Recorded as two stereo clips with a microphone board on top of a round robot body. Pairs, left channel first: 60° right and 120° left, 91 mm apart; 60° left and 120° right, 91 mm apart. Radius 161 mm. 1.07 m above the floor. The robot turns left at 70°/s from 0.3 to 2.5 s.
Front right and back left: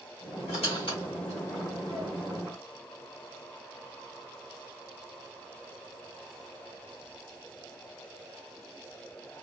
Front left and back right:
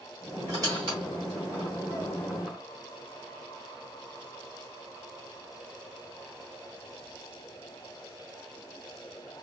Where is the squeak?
60° right, 0.9 m; by 2.6 s 160° left, 0.9 m.